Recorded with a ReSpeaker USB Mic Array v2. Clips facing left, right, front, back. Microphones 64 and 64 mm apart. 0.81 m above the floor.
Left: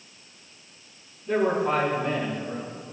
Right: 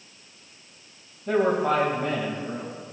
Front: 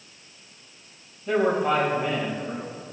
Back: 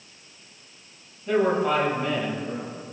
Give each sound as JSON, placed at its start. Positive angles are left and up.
{"t": 1.3, "sound": "a man speaking", "azimuth_deg": -80, "distance_m": 3.5}